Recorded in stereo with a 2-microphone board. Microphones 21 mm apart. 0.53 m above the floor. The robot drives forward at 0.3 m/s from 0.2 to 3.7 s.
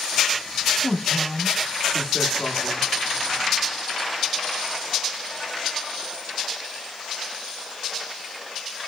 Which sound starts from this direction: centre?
A man speaking, at 0.8 s.